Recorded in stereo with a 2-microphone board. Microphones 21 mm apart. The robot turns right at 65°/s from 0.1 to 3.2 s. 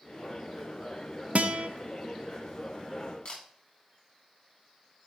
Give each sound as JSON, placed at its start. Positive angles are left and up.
{"t": 1.4, "sound": "a guitar", "side_deg": -80, "distance_m": 0.5}
{"t": 3.2, "sound": "a camera shutter", "side_deg": 55, "distance_m": 3.0}